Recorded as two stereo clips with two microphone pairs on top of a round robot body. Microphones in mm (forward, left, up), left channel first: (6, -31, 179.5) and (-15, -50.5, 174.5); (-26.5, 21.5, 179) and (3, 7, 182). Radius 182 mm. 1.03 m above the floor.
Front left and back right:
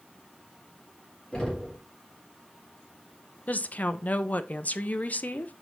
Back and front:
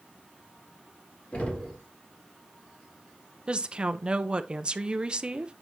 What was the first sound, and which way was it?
Knocking, 110° left.